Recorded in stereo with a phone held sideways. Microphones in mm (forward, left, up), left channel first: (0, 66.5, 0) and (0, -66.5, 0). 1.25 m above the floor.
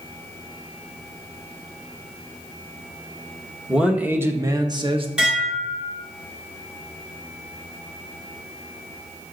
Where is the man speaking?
5° right (ahead or behind), 1.2 m; by 5.1 s 45° right (ahead or behind), 0.9 m.